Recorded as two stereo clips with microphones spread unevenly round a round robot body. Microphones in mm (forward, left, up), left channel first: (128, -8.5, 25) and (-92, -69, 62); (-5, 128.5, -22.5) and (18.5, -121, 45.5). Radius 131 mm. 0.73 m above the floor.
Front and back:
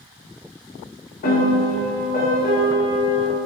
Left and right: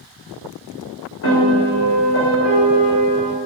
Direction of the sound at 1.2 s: 65° left.